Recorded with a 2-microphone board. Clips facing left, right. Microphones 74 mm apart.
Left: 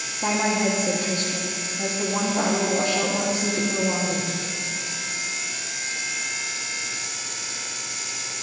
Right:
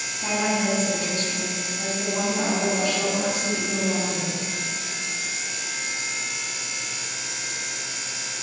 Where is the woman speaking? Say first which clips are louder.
Left 2 dB; 35° left (ahead or behind), 1.0 m.